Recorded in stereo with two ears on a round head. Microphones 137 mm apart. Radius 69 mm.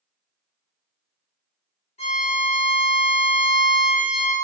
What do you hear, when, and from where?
2.0 s a violin: 40° left (ahead or behind), 1.2 m